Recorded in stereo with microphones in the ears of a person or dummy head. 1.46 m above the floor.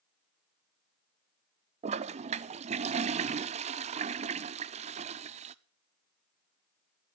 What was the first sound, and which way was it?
A toilet flushing, 35° right (ahead or behind).